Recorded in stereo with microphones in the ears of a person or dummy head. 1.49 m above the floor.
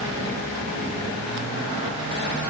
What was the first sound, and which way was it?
Only background noise.